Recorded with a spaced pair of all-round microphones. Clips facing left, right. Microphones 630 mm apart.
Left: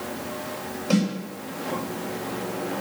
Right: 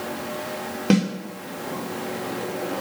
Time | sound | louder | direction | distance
0.9 | a snare drum | right 3 dB | 80° right | 2.5 m